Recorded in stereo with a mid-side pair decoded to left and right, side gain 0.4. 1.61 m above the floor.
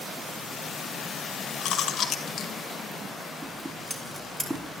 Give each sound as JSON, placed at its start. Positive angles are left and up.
{"t": 1.6, "sound": "chewing", "azimuth_deg": 70, "distance_m": 1.4}
{"t": 3.4, "sound": "scissors", "azimuth_deg": -10, "distance_m": 3.0}